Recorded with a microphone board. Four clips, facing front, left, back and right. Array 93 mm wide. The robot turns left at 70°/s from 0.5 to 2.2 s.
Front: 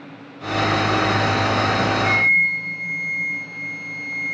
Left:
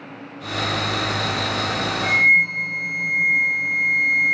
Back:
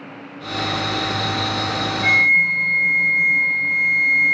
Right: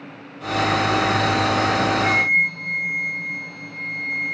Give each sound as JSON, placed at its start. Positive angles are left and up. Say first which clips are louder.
{"t": 2.0, "sound": "a flute", "louder": "left 2 dB, back 7 dB", "azimuth_deg": 175, "distance_m": 3.0}